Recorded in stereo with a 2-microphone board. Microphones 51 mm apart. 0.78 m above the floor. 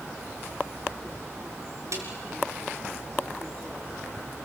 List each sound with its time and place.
1.9 s a snare drum: 80° right, 4.5 m